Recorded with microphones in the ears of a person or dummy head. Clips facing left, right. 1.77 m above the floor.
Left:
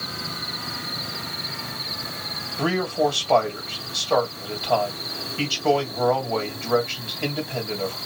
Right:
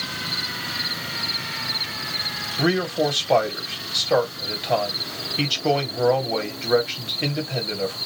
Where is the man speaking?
20° right (ahead or behind), 1.8 m.